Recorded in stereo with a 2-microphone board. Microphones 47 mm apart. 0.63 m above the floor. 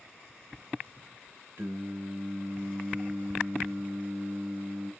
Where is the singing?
55° right (ahead or behind), 0.7 m.